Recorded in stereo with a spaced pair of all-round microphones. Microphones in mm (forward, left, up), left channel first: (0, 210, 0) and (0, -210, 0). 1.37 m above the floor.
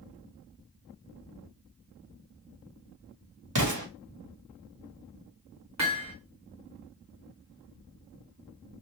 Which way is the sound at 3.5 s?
45° right (ahead or behind).